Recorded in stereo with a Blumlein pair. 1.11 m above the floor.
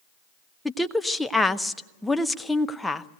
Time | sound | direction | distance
0.7 | a woman speaking | 5° left | 0.6 m